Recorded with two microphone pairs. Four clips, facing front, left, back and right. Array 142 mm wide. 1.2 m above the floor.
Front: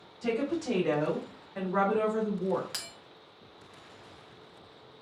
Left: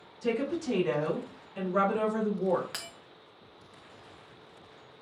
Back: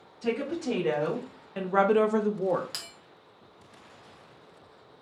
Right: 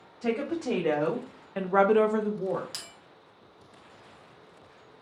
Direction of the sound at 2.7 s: 95° left.